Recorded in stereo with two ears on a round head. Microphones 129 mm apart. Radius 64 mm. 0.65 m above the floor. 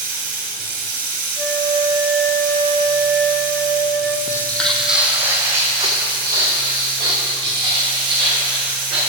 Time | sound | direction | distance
0.0 | running water | 65° right (ahead or behind) | 2.5 m
1.4 | a flute | 15° left (ahead or behind) | 1.2 m
4.3 | footsteps | 20° left (ahead or behind) | 1.0 m